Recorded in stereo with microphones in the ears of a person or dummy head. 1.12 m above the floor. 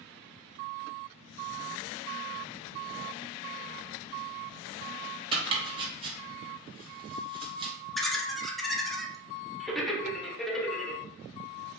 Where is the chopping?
30° right (ahead or behind), 0.7 m.